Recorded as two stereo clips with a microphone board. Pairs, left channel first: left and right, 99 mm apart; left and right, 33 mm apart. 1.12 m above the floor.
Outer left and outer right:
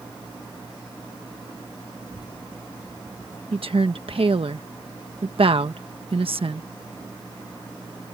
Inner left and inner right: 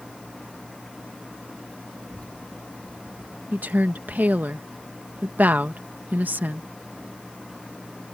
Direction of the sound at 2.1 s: 45° left (ahead or behind).